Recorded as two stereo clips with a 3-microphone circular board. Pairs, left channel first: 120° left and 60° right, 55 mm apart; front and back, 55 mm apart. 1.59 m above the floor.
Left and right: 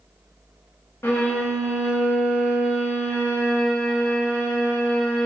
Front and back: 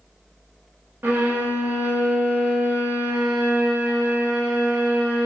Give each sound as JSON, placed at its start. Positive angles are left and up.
{"t": 1.0, "sound": "a violin", "azimuth_deg": 145, "distance_m": 0.9}